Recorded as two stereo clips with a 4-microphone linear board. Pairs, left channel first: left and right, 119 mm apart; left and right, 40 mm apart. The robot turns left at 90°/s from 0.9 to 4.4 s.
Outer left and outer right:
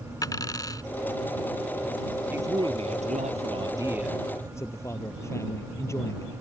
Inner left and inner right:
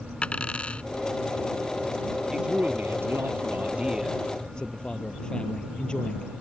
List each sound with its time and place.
0.2 s a dropped coin: 30° left (ahead or behind)
2.3 s a man speaking: 15° right; by 6.3 s 155° left